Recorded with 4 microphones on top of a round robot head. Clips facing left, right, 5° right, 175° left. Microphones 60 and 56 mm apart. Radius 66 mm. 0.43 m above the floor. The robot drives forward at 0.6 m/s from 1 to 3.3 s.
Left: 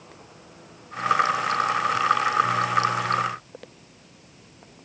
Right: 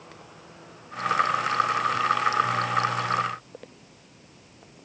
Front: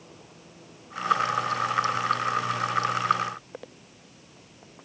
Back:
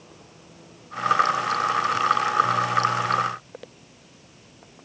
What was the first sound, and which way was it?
Only background noise.